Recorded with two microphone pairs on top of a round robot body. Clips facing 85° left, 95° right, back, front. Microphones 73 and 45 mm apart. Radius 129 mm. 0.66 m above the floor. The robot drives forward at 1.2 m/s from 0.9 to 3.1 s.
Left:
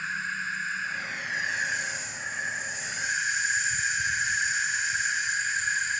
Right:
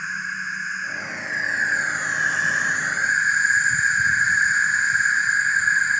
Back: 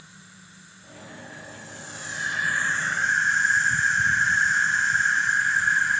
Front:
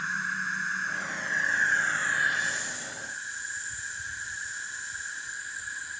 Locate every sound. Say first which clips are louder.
0.0 s an insect: right 3 dB, front 20 dB; 15° right; by 6.0 s 145° right